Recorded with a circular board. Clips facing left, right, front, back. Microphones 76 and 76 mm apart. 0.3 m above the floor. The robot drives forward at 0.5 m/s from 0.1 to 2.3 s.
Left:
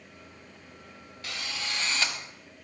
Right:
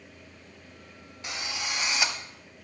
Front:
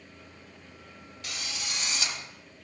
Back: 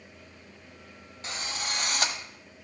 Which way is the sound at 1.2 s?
150° right.